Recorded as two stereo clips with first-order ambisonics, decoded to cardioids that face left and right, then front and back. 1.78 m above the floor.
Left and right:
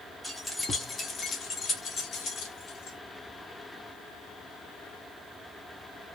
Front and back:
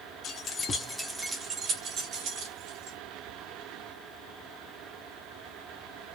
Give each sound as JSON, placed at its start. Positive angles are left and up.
{"t": 0.2, "sound": "keys jangling", "azimuth_deg": 0, "distance_m": 1.0}